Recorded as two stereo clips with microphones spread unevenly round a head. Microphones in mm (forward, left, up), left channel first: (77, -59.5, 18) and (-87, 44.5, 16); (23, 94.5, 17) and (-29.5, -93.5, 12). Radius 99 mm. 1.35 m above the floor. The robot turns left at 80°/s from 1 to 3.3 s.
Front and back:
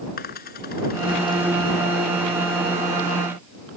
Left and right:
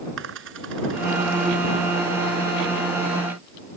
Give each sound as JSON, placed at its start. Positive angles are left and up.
{"t": 0.2, "sound": "a dropped coin", "azimuth_deg": -75}